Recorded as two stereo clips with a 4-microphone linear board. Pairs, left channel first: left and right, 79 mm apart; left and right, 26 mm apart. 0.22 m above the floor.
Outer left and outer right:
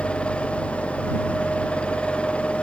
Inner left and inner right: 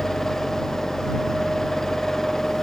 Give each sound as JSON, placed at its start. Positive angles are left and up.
{"t": 0.0, "sound": "an engine running", "side_deg": 15}